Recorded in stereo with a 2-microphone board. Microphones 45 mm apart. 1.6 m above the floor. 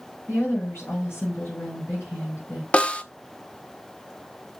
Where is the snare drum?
20° left (ahead or behind), 0.6 m.